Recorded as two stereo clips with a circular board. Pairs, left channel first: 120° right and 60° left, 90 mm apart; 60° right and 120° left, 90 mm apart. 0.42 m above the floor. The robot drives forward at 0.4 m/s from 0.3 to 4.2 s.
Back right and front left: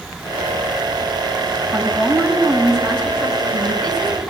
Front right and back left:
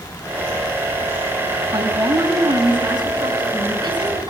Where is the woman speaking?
160° left, 3.5 m; by 4.3 s 165° left, 4.5 m.